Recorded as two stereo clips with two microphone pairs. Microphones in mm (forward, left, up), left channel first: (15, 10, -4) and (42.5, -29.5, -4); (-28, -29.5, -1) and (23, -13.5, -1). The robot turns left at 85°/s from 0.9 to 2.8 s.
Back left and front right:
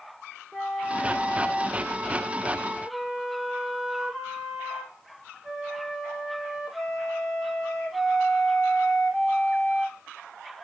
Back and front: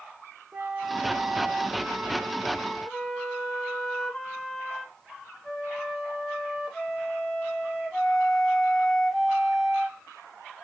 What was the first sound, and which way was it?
A flute, 55° left.